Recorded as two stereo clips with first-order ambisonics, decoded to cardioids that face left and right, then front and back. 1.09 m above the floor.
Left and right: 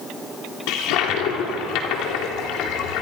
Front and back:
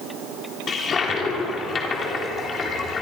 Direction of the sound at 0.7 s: 65° left.